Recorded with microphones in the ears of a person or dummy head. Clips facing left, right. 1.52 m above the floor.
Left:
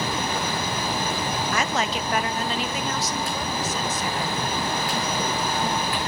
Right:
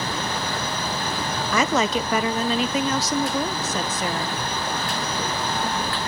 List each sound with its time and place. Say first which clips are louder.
1.5 s a woman speaking: right 8 dB; 65° right (ahead or behind), 1.0 m; by 4.4 s 50° right (ahead or behind), 1.7 m